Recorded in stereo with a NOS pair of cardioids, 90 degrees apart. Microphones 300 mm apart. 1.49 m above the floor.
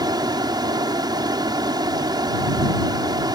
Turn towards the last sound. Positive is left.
turn(degrees=-15)